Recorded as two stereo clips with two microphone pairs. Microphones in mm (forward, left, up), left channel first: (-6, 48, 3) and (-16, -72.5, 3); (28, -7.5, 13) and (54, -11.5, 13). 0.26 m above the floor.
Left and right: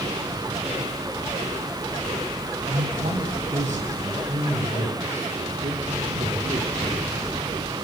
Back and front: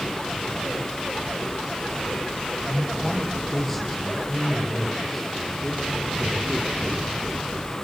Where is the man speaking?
100° right, 10 m; by 7.7 s 85° right, 13 m.